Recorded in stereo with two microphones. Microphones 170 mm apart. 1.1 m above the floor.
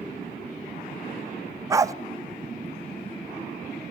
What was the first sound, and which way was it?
A dog barking, 20° right (ahead or behind).